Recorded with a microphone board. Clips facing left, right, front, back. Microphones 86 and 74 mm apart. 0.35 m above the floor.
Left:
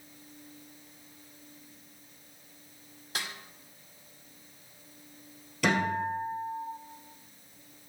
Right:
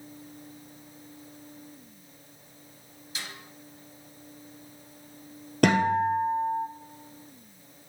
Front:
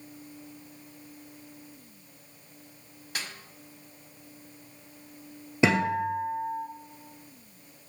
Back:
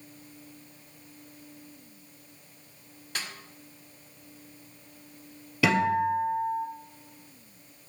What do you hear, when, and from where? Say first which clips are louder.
3.1 s a snare drum: left 3 dB, even; 85° left, 1.3 m
5.6 s a guitar: right 6 dB, back 1 dB; 65° right, 1.8 m